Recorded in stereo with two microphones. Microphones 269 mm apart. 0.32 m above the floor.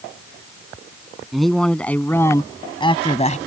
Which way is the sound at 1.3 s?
Centre (ahead or behind).